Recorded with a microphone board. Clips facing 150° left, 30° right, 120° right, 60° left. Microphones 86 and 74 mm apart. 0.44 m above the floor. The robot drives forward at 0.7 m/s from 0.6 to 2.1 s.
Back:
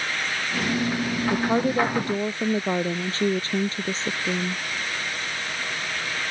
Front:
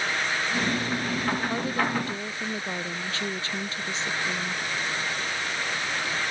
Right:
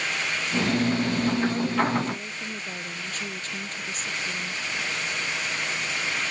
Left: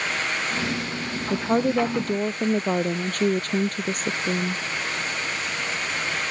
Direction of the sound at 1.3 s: 95° left.